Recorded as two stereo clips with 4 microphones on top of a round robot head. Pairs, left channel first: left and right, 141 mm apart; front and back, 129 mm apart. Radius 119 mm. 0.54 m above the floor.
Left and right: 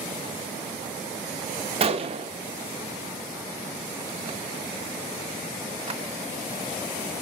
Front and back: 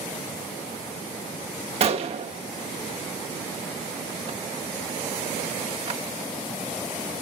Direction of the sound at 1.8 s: 140° right.